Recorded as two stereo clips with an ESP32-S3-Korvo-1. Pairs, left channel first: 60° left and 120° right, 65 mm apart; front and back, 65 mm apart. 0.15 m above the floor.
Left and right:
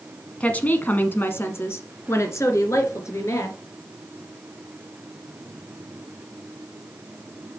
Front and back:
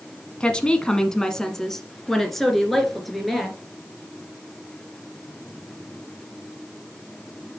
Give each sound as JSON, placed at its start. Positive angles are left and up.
{"t": 0.4, "sound": "a woman speaking", "azimuth_deg": 45, "distance_m": 1.1}